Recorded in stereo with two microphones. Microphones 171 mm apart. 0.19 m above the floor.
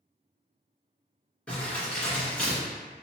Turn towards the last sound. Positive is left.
turn(degrees=5)  # may be behind; listen again after turning